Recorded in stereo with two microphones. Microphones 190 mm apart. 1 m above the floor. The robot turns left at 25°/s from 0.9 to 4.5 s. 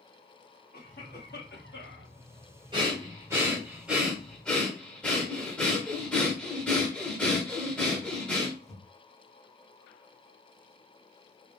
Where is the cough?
130° left, 1.5 m; by 2.1 s 100° left, 1.5 m.